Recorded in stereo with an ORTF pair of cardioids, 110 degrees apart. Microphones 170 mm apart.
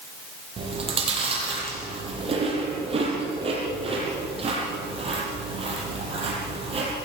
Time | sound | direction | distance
0.6 | chewing | 35° right | 7.5 m